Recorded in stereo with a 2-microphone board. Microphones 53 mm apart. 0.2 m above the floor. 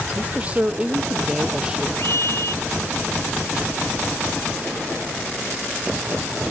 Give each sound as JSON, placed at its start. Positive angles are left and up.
{"t": 0.1, "sound": "a man speaking", "side_deg": -25}
{"t": 2.0, "sound": "a scream", "side_deg": 60}